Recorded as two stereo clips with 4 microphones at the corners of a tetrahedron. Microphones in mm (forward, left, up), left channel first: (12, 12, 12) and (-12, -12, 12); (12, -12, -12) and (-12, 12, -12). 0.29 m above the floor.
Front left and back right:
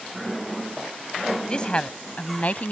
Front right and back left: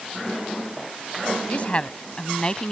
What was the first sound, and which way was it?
A woman speaking, 10° right.